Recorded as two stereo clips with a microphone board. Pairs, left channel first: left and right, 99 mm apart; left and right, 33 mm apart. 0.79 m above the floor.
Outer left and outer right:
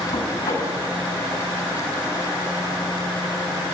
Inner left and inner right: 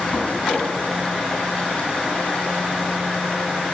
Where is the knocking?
60° left (ahead or behind), 5.5 m.